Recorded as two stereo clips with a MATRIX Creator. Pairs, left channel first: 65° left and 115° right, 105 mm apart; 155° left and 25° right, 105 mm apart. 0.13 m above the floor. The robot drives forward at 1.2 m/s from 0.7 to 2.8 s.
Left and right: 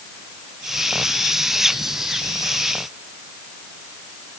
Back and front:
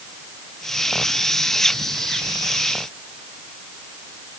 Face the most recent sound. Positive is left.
No sound to turn to.